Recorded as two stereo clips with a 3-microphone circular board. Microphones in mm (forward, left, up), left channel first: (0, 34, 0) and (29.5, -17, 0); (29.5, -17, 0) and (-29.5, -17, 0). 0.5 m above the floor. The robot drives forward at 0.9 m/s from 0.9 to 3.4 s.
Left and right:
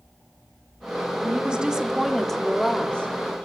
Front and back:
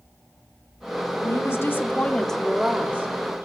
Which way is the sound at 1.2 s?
5° left.